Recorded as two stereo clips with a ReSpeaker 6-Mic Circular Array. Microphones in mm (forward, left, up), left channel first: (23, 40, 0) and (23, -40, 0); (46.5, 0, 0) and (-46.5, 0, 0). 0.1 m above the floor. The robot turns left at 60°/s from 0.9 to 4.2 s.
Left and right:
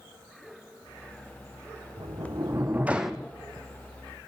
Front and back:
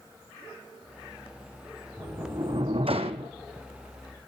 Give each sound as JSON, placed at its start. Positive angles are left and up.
{"t": 2.0, "sound": "a sliding door", "azimuth_deg": -110, "distance_m": 0.9}